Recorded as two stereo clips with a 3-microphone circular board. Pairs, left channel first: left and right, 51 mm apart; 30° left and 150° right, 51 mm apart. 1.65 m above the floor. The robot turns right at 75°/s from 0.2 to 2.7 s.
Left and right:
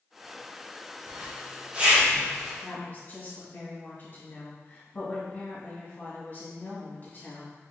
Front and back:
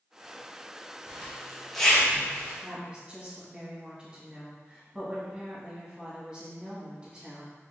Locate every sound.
1.1 s a zipper: 100° right, 1.0 m; by 2.5 s 10° left, 1.0 m
2.6 s a woman speaking: 130° left, 1.7 m; by 7.5 s 135° left, 1.7 m